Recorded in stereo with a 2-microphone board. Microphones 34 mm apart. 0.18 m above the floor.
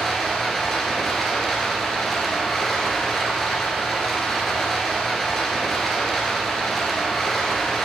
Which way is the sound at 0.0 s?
5° left (ahead or behind).